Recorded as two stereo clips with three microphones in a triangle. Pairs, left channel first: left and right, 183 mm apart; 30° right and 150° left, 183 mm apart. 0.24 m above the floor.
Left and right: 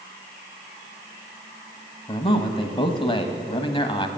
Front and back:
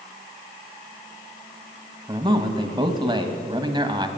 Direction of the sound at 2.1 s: 115° left.